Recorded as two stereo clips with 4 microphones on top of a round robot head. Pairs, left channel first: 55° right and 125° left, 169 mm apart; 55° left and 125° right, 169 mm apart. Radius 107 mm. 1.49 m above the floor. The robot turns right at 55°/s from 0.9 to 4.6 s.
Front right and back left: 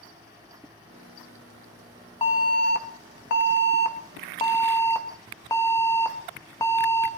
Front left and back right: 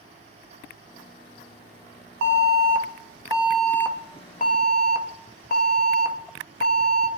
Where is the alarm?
115° right, 1.3 m; by 7.1 s 20° left, 1.3 m.